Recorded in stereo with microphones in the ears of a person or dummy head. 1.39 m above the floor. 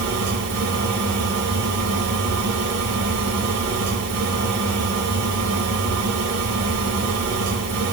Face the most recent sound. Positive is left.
turn(degrees=-80)